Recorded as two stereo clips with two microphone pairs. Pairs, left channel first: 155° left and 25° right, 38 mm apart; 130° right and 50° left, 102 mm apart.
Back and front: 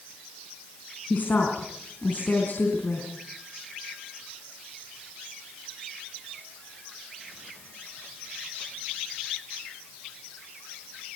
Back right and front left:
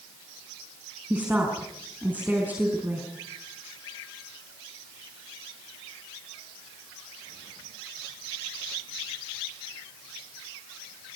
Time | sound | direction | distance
1.1 | a woman speaking | 120° left | 4.5 m